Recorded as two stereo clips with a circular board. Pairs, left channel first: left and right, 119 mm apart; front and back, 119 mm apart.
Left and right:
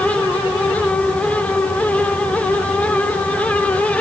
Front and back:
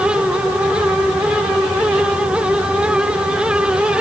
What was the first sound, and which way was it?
Only background noise.